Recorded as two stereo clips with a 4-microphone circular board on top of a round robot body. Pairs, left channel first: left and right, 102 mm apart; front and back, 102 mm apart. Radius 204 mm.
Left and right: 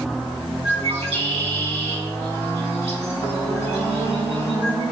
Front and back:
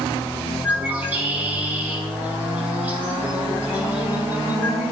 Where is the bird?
105° right, 6.5 m.